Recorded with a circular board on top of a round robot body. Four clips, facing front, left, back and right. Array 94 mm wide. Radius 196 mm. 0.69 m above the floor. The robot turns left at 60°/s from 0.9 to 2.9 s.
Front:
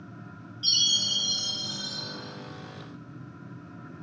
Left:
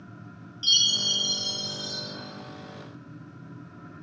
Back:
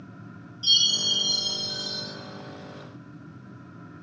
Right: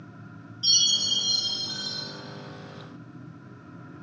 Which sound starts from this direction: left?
A chime, at 0.6 s.